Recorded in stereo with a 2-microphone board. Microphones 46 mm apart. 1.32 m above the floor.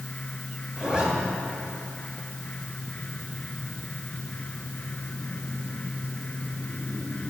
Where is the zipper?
25° right (ahead or behind), 1.4 m.